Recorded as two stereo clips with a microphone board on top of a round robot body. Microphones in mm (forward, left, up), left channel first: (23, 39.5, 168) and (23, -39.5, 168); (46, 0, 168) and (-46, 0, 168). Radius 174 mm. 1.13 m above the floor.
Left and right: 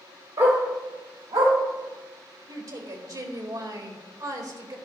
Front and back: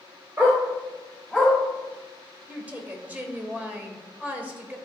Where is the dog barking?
115° right, 1.5 m; by 1.5 s 95° right, 3 m.